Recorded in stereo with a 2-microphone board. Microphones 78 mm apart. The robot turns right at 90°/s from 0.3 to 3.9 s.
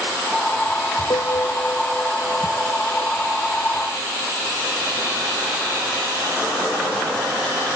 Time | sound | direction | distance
1.1 | a piano | 95° left | ?